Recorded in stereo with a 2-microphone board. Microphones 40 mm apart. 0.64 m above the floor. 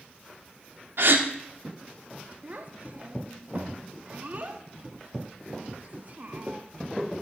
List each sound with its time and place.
1.0 s a gasp: 65° right (ahead or behind), 0.7 m
2.4 s a child speaking: 45° right (ahead or behind), 0.5 m